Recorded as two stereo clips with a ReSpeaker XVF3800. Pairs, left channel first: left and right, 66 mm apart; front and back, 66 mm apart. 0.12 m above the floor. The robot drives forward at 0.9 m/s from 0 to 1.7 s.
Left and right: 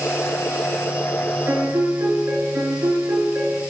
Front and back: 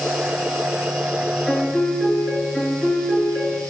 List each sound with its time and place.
1.5 s a piano: 80° right, 2.5 m; by 3.6 s 85° right, 2.5 m